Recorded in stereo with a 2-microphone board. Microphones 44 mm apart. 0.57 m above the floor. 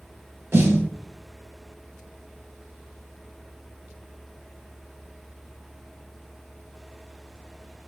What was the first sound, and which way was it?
A snare drum, 80° right.